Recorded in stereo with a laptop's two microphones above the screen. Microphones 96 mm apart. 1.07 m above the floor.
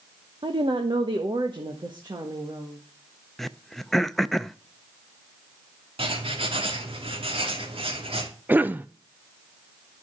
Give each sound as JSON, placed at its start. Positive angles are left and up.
{"t": 0.4, "sound": "a woman speaking", "side_deg": -60, "distance_m": 0.9}
{"t": 3.4, "sound": "throat clearing", "side_deg": 5, "distance_m": 0.5}
{"t": 6.0, "sound": "writing", "side_deg": -75, "distance_m": 2.5}
{"t": 8.5, "sound": "a cough", "side_deg": -20, "distance_m": 0.5}